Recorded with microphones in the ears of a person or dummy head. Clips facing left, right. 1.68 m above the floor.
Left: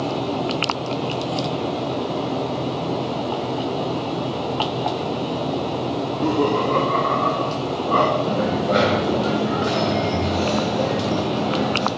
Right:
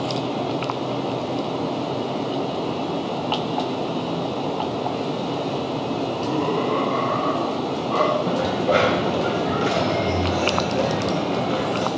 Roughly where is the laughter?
Left.